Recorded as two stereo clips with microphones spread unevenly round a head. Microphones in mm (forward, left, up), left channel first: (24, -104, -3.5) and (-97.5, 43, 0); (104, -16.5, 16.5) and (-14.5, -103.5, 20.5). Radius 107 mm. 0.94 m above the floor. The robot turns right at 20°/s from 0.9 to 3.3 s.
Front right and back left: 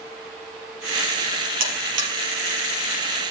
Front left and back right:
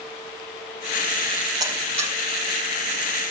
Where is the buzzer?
140° left, 4.5 m; by 2.1 s 150° left, 4.5 m.